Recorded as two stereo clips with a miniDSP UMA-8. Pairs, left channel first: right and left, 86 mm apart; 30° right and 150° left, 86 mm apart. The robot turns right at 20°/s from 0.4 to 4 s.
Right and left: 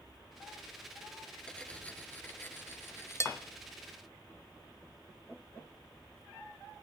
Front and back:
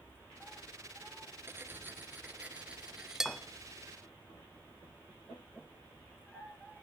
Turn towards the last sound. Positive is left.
turn(degrees=-115)